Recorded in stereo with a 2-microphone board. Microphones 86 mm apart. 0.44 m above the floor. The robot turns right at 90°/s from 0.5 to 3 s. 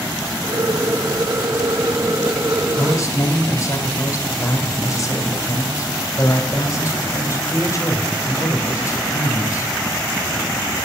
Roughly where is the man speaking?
Left.